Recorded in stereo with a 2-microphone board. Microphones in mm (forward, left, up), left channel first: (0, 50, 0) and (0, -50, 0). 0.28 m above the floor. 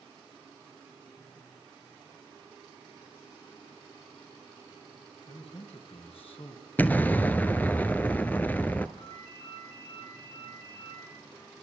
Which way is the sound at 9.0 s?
55° left (ahead or behind).